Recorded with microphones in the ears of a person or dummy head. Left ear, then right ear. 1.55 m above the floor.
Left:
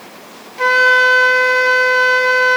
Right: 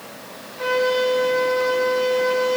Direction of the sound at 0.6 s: 50° left (ahead or behind).